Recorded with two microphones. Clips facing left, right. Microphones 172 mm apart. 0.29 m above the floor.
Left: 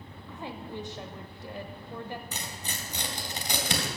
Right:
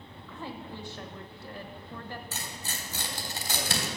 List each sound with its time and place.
0.3 s a woman speaking: 20° left (ahead or behind), 0.9 m
2.3 s tearing paper: 15° left (ahead or behind), 3 m